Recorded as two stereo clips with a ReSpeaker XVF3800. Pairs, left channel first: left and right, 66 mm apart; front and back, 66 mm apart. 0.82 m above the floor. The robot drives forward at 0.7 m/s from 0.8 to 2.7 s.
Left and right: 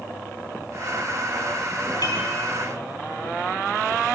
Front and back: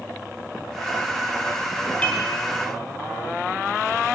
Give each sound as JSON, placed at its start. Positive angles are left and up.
{"t": 2.0, "sound": "dishes clattering", "azimuth_deg": 70, "distance_m": 4.5}